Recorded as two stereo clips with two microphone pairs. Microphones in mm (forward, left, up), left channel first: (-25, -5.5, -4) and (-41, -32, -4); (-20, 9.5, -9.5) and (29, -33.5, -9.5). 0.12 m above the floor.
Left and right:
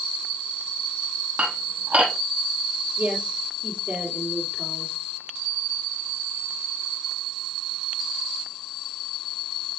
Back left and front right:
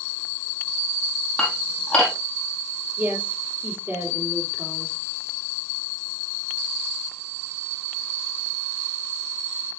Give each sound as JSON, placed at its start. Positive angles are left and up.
{"t": 1.4, "sound": "dishes clattering", "azimuth_deg": -150, "distance_m": 3.0}
{"t": 3.0, "sound": "a woman speaking", "azimuth_deg": -100, "distance_m": 3.5}